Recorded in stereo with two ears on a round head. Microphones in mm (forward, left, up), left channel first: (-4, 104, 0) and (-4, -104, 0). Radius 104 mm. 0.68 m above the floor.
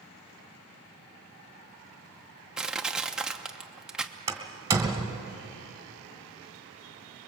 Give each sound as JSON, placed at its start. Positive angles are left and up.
{"t": 2.6, "sound": "crushing", "side_deg": -5, "distance_m": 0.9}
{"t": 4.3, "sound": "a door slam", "side_deg": -15, "distance_m": 2.0}